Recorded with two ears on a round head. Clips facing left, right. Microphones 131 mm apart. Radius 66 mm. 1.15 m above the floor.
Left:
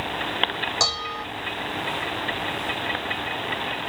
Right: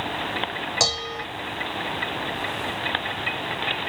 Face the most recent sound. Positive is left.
turn(degrees=-25)  # may be behind; listen again after turning